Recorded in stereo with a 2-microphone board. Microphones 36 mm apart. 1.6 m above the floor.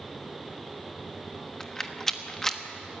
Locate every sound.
1.6 s a rattle: 15° left (ahead or behind), 1.2 m